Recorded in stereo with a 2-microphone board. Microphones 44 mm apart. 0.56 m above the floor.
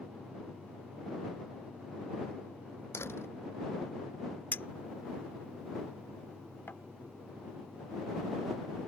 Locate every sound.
2.9 s a door slam: 75° left (ahead or behind)
4.5 s a clink: 60° left (ahead or behind)